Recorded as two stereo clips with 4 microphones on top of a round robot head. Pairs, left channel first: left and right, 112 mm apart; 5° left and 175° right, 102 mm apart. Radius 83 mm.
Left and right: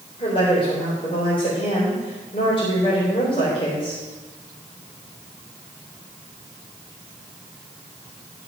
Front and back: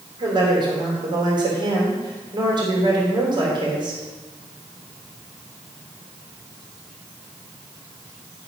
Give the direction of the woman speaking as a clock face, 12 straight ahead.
7 o'clock.